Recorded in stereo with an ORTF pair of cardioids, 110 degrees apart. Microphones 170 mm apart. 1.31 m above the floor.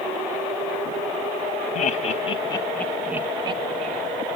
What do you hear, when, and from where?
1.8 s laughter: 50° left, 1.1 m; by 4.0 s 50° right, 1.0 m